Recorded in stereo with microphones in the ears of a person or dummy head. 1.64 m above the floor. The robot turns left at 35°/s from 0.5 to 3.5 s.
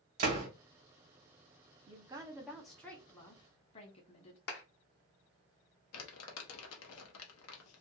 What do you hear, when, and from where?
0.2 s a door slam: 40° right (ahead or behind), 1.2 m
1.9 s a woman speaking: 150° right, 0.9 m; by 4.4 s 155° left, 0.9 m
4.5 s a clap: 55° left (ahead or behind), 0.9 m
5.9 s crumpling: 75° left (ahead or behind), 0.8 m